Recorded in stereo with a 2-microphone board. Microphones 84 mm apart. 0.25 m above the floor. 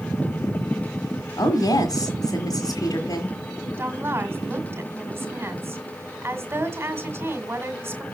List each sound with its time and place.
1.4 s a woman speaking: 45° left (ahead or behind), 1.6 m
3.8 s a woman speaking: 30° right (ahead or behind), 1.8 m